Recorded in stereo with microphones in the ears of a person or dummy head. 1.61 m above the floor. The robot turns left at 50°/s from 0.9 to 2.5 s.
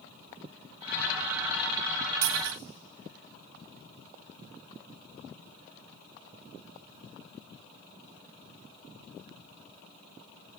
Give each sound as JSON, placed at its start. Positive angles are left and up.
{"t": 2.2, "sound": "a dropped coin", "side_deg": -65, "distance_m": 3.5}